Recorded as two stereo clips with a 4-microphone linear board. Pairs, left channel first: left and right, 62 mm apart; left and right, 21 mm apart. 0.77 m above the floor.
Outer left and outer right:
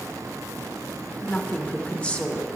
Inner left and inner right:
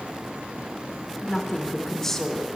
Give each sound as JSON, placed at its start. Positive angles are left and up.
{"t": 1.2, "sound": "a woman speaking", "side_deg": 20, "distance_m": 2.0}